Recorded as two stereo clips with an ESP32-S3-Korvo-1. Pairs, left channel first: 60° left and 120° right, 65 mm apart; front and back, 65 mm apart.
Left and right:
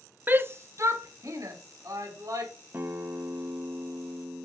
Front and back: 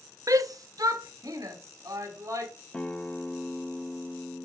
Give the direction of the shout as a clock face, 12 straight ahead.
6 o'clock.